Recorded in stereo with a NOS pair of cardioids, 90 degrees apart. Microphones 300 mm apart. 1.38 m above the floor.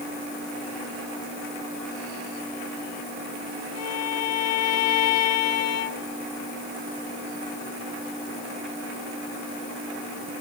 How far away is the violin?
About 3 m.